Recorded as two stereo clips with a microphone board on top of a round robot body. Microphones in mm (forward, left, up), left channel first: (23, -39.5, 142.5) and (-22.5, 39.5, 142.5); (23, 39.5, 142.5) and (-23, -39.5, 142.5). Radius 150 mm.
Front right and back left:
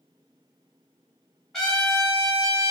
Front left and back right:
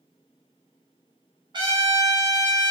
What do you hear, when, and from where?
1.5 s a trumpet: 150° right, 1.7 m